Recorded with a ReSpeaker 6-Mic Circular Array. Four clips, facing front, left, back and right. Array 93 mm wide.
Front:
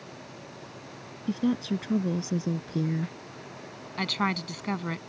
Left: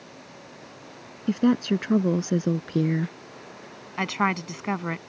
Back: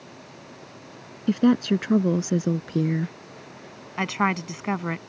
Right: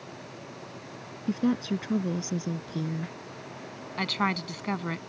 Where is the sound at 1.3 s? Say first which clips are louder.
Left 5 dB, back 8 dB; 155° left; by 3.1 s 120° left.